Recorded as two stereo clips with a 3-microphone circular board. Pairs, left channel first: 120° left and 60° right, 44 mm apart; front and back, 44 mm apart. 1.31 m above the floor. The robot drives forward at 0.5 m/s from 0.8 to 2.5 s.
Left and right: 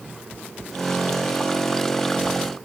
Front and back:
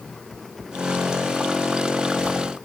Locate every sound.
Only background noise.